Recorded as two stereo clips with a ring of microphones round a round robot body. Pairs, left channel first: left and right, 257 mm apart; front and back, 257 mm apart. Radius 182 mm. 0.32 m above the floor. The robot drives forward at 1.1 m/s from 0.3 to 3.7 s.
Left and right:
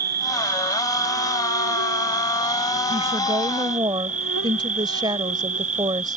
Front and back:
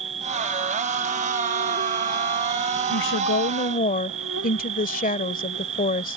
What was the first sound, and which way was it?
An insect, 105° right.